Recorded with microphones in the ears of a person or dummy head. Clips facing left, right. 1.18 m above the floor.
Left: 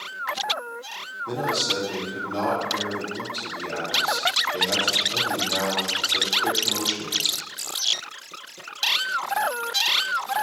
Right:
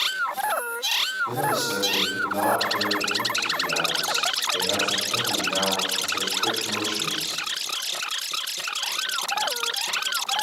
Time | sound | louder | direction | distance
1.3 | a man speaking | right 1 dB | 5° left (ahead or behind) | 3 m